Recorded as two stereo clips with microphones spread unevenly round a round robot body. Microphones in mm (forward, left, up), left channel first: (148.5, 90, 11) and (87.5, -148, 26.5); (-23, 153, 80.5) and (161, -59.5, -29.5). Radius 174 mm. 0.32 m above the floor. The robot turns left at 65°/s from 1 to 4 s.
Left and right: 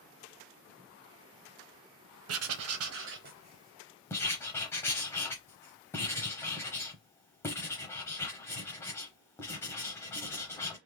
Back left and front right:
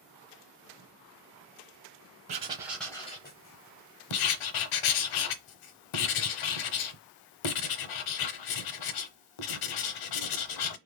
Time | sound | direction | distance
2.3 | writing | 95° right | 0.5 m